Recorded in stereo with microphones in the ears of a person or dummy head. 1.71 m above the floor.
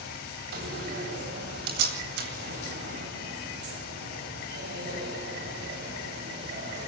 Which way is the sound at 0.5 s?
60° right (ahead or behind).